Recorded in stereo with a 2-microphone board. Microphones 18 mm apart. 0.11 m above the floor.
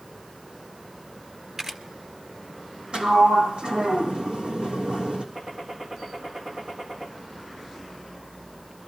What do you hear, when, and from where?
1.6 s a camera shutter: 30° right (ahead or behind), 1.5 m
2.9 s a sliding door: 80° right, 3 m
5.3 s a gunshot: 80° right, 4 m